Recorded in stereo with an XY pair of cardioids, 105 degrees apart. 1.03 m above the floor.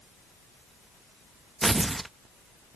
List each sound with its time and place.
1.6 s tearing paper: 15° right